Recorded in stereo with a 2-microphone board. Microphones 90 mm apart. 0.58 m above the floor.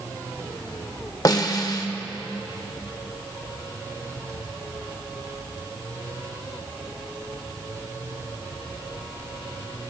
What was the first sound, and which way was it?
A snare drum, 45° left (ahead or behind).